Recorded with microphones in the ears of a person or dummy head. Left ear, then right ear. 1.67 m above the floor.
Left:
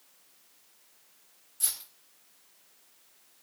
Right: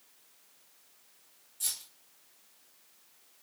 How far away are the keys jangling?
About 2.5 m.